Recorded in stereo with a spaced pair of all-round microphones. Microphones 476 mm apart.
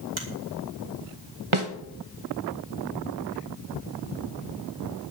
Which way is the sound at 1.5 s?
80° right.